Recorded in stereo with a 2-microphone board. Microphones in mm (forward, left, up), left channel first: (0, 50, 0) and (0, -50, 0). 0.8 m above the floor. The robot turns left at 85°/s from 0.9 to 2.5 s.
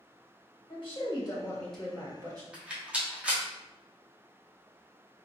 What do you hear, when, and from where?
0.7 s a woman speaking: 75° left, 1.1 m; by 2.4 s 55° right, 1.1 m
2.5 s a rattle: 10° right (ahead or behind), 1.0 m